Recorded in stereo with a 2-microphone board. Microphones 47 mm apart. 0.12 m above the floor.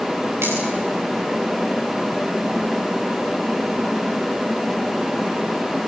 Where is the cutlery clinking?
70° right (ahead or behind), 9.5 m.